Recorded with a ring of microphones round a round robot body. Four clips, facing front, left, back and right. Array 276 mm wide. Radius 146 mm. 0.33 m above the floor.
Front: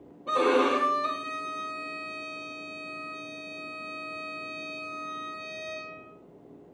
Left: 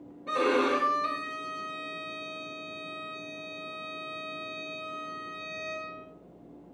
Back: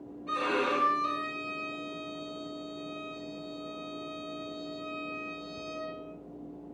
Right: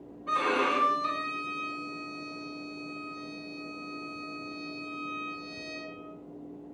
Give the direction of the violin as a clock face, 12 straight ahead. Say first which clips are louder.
Left 2 dB, front 7 dB; 11 o'clock.